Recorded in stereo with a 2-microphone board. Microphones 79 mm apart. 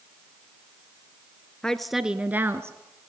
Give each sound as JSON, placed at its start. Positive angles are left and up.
{"t": 1.6, "sound": "a woman speaking", "side_deg": 10, "distance_m": 1.2}